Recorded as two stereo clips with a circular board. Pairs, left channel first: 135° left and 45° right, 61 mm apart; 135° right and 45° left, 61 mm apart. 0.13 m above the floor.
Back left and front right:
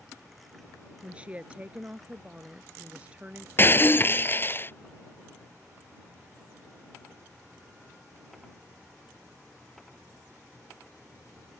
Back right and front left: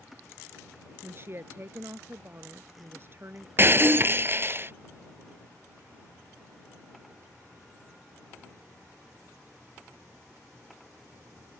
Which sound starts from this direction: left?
Breaking glass, at 3.6 s.